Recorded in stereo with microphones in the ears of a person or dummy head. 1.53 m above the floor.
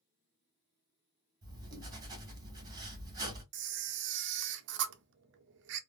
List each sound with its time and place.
1.4 s writing: 20° right (ahead or behind), 1.8 m
3.5 s a camera shutter: 60° right (ahead or behind), 0.6 m